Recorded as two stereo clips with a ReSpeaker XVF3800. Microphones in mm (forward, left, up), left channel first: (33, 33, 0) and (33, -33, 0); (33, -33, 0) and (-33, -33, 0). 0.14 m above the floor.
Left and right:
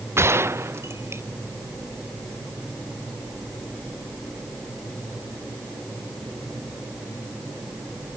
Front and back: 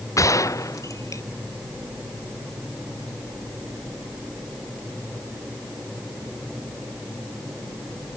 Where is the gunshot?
40° right.